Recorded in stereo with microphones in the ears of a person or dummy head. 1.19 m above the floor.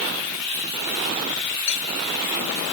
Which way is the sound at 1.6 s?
60° left (ahead or behind).